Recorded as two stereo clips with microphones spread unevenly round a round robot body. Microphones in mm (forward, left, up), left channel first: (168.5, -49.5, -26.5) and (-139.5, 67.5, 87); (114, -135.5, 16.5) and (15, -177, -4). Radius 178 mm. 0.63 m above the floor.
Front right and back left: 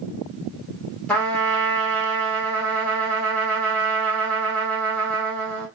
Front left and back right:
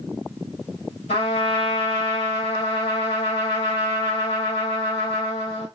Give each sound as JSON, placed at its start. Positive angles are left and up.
{"t": 1.1, "sound": "a trumpet", "azimuth_deg": 65, "distance_m": 1.5}